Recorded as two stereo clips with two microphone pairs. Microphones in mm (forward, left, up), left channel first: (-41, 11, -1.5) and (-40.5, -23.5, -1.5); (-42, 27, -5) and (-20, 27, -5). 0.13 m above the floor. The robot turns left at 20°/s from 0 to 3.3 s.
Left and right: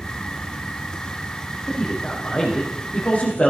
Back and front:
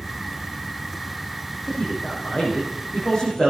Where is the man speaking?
165° left, 5 m; by 3.5 s 130° left, 5 m.